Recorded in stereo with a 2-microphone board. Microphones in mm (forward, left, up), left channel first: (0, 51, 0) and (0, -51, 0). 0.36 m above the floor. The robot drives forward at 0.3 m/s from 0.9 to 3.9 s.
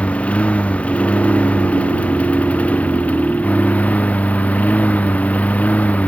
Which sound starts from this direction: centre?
A lawn mower, at 0.0 s.